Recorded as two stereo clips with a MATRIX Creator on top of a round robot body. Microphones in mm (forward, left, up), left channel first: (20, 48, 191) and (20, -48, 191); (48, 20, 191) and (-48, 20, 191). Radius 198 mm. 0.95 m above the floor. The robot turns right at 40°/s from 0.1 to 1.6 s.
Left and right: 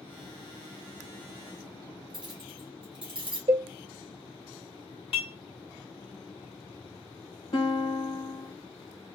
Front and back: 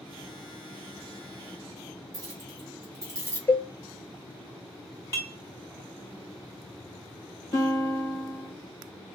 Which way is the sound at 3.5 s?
70° right.